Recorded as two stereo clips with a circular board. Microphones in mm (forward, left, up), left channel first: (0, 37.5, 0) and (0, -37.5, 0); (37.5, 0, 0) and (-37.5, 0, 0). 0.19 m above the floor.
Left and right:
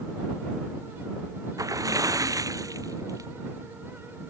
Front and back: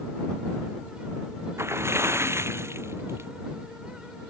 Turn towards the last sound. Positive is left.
turn(degrees=-130)